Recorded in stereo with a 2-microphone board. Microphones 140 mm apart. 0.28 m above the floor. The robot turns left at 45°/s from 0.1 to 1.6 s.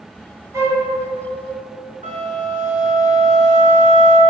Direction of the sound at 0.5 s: 20° right (ahead or behind).